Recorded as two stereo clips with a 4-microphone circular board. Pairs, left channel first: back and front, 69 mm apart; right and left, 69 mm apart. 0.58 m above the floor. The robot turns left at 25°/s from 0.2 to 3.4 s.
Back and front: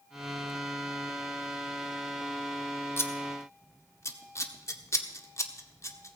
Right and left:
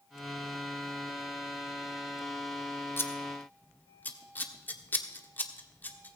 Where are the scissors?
135° right, 1.2 m; by 6.2 s 150° right, 1.2 m.